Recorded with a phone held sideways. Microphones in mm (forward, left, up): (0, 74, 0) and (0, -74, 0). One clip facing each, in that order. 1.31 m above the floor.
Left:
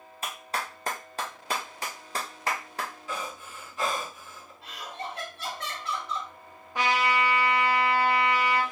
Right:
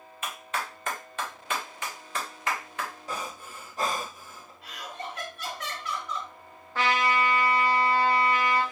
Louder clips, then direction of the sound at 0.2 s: Even; 35° left (ahead or behind).